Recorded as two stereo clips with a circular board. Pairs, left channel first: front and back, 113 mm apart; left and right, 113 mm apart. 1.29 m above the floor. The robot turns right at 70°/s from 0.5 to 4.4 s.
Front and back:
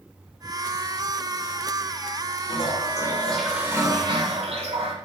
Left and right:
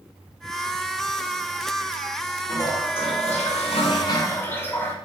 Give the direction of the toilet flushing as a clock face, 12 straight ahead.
11 o'clock.